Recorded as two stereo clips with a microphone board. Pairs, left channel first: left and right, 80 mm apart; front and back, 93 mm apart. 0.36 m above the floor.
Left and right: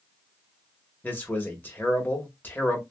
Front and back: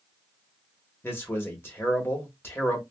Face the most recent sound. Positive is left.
turn(degrees=45)